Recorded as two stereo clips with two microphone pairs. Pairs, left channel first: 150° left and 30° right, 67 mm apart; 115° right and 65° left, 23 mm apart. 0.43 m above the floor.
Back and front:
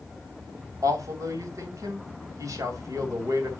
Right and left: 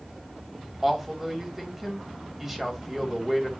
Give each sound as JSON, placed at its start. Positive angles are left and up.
{"t": 0.8, "sound": "a man speaking", "azimuth_deg": -10, "distance_m": 2.5}